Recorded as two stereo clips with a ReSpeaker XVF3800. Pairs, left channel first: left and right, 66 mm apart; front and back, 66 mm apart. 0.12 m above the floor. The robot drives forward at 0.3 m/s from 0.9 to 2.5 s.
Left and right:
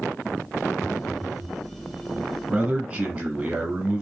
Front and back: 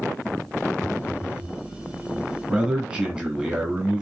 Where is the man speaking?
135° right, 1.5 m.